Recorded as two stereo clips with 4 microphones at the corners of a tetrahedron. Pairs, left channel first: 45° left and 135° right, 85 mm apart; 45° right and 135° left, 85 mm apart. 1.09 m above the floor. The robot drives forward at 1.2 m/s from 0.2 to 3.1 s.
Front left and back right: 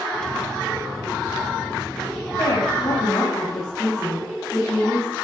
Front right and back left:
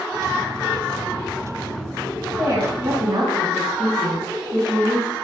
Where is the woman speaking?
95° left, 7.5 m; by 5.2 s 100° left, 7.5 m.